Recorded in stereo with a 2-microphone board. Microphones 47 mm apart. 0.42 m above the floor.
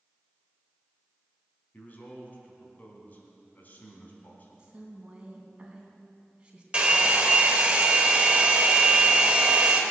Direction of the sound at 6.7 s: 20° right (ahead or behind).